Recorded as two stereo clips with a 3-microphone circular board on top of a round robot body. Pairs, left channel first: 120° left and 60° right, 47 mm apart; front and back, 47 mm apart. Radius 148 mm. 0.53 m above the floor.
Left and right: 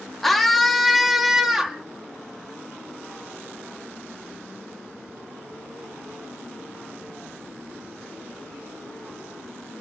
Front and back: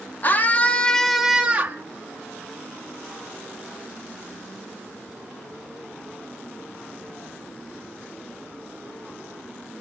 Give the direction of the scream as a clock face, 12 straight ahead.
11 o'clock.